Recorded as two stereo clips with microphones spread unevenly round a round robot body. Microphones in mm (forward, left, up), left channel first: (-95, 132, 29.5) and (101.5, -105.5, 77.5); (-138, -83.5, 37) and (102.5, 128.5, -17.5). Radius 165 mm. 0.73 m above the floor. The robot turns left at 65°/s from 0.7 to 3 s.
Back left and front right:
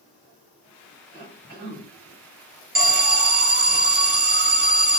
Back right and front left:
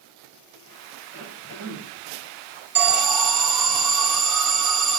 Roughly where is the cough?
Ahead right.